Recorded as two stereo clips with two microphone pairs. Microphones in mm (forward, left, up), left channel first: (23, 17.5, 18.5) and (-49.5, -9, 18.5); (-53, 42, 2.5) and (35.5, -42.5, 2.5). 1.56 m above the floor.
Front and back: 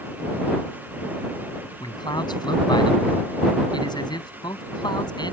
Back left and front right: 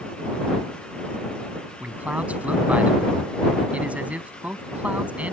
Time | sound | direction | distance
1.8 | a man speaking | 35° left | ?